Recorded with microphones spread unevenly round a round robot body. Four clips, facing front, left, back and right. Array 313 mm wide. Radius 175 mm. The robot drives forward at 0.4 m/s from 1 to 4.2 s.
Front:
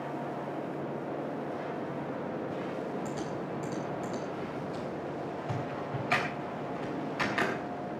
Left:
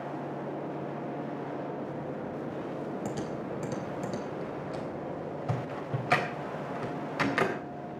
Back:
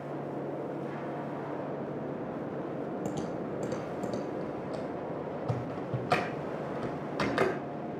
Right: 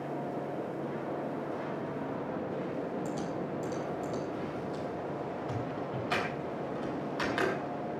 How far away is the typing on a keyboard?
About 3.5 m.